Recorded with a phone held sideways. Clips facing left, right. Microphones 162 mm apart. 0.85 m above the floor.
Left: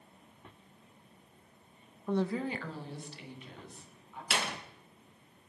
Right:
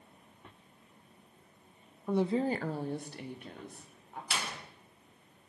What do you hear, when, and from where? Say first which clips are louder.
2.1 s a woman speaking: right 3 dB; 5° right (ahead or behind), 0.7 m; by 4.2 s 50° right (ahead or behind), 3 m
4.3 s a door slam: left 4 dB; 70° left (ahead or behind), 1.4 m